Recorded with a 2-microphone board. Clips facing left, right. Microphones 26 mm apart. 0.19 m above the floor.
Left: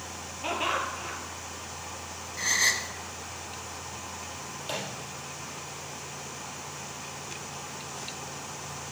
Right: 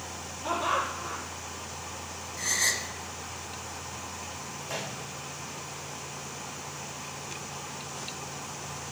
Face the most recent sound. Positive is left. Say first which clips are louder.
# left 1 dB
turn(degrees=70)  # may be behind; listen again after turning